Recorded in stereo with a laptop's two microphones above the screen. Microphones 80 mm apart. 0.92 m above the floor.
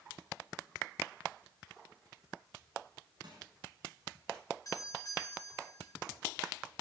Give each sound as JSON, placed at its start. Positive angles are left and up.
{"t": 3.2, "sound": "crushing", "side_deg": -70, "distance_m": 8.0}
{"t": 4.7, "sound": "a doorbell", "side_deg": 45, "distance_m": 5.5}